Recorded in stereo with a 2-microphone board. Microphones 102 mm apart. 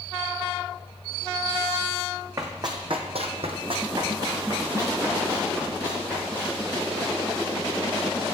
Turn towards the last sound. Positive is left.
turn(degrees=-20)  # may be behind; listen again after turning